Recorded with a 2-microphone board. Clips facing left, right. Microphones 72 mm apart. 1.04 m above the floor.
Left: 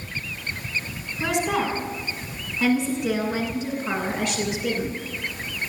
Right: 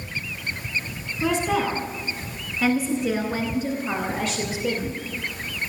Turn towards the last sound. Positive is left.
turn(degrees=75)  # may be behind; listen again after turning